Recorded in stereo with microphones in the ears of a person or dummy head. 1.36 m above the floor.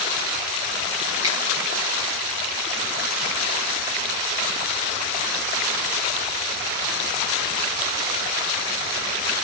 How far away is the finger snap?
About 3.5 m.